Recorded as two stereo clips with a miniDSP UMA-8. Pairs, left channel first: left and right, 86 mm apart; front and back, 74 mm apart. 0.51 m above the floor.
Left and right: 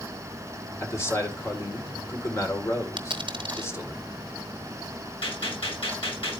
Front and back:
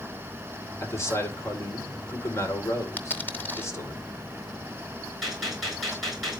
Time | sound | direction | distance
0.8 | a man speaking | 40° left | 2.0 m
3.0 | a dropped coin | 65° right | 1.1 m
5.2 | a gunshot | 90° left | 7 m